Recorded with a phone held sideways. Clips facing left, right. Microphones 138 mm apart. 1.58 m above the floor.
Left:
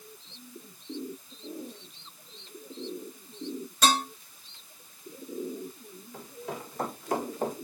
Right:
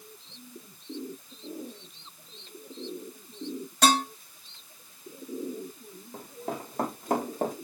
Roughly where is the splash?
No splash in this recording.